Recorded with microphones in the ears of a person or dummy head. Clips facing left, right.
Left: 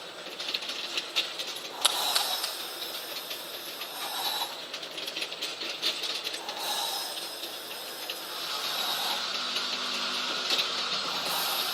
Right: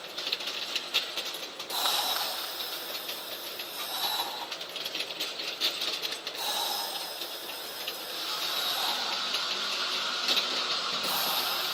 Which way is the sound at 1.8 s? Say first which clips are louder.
Left 2 dB; 45° left (ahead or behind).